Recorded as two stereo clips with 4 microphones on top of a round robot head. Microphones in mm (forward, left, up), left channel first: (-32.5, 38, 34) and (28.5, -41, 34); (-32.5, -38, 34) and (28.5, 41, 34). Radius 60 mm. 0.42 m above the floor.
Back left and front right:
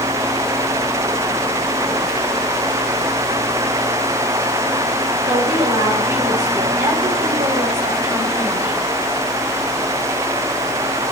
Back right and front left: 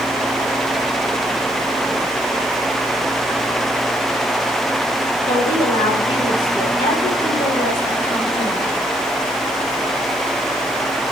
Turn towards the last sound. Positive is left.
turn(degrees=-95)